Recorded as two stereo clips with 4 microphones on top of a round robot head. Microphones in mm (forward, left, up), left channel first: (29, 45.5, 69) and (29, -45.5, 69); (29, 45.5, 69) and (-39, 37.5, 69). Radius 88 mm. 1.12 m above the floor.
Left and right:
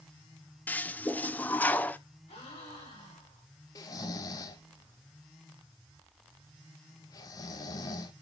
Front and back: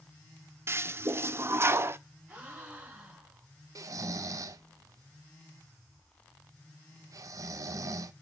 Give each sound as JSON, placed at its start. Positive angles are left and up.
{"t": 0.7, "sound": "a toilet flushing", "azimuth_deg": 155, "distance_m": 0.6}
{"t": 2.3, "sound": "a gasp", "azimuth_deg": 120, "distance_m": 4.5}
{"t": 3.8, "sound": "snoring", "azimuth_deg": 145, "distance_m": 0.7}